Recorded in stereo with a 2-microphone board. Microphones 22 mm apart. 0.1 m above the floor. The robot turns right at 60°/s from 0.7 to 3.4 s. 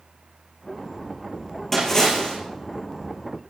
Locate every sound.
1.7 s a splash: 15° left, 6 m; by 2.4 s 55° left, 6 m